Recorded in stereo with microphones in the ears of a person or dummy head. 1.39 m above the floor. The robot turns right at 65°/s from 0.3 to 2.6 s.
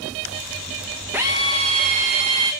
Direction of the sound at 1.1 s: 10° right (ahead or behind).